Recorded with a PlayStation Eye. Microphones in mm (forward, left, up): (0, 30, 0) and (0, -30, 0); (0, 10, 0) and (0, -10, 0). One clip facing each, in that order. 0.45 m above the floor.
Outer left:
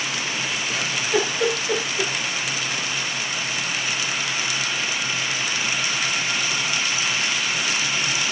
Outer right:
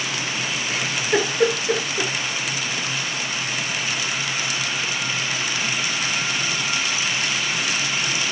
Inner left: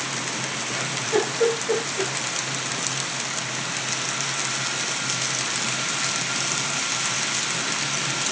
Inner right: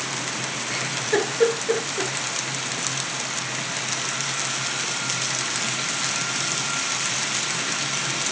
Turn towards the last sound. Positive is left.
turn(degrees=-40)  # may be behind; listen again after turning